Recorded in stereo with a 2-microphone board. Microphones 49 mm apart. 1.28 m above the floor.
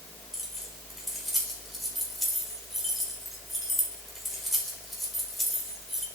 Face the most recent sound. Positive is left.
turn(degrees=0)  # may be behind; listen again after turning